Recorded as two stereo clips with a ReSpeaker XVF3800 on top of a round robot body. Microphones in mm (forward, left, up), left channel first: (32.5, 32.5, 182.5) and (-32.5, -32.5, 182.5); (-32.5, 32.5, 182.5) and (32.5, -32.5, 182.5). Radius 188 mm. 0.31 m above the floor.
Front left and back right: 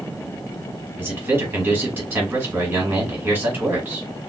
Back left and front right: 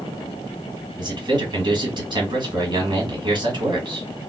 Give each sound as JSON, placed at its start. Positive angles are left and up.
{"t": 1.0, "sound": "a man speaking", "azimuth_deg": -70, "distance_m": 1.7}